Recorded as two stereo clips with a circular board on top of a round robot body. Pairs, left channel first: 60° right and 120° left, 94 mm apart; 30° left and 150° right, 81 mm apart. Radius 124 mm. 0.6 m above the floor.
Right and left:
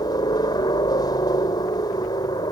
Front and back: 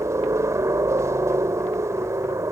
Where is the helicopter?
100° right.